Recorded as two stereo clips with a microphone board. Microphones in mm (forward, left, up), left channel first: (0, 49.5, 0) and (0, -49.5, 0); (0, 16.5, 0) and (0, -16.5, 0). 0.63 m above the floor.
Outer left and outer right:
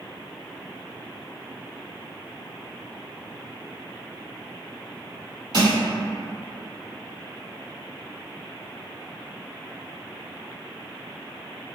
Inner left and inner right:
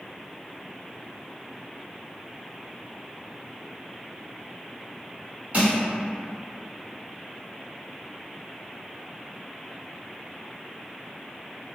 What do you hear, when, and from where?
5.5 s crushing: 55° right (ahead or behind), 1.6 m